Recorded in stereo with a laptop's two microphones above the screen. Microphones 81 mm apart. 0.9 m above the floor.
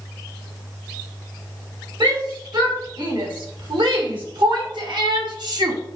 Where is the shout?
75° right (ahead or behind), 5 m; by 5.8 s 55° right (ahead or behind), 1.4 m.